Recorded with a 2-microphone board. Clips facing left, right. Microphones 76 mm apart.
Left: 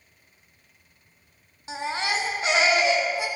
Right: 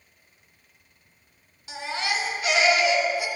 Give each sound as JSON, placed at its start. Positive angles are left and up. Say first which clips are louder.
{"t": 1.7, "sound": "a baby crying", "louder": "left 1 dB", "side_deg": 30, "distance_m": 0.8}